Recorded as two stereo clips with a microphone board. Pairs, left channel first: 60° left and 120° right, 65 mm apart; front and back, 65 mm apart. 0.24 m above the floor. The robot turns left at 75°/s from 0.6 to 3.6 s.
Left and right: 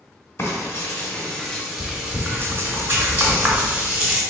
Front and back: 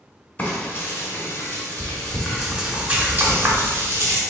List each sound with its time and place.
0.4 s frying: 40° left, 1.4 m; by 4.2 s 175° left, 1.4 m